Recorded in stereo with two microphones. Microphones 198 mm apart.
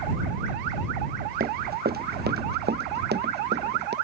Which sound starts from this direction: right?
Running footsteps, at 1.4 s.